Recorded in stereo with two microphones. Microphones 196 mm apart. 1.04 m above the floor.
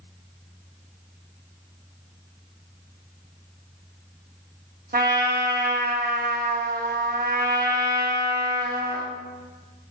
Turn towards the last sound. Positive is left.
turn(degrees=-50)  # may be behind; listen again after turning